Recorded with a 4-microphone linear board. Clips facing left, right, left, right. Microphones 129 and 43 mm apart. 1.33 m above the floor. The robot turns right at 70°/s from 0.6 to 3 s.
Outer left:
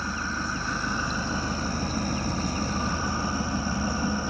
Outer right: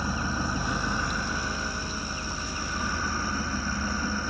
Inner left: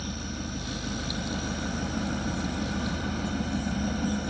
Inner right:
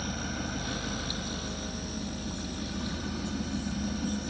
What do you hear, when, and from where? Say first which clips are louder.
0.0 s an engine running: outer right 2 dB, inner right 1 dB; 15° right, 1.1 m; by 4.3 s 155° left, 1.1 m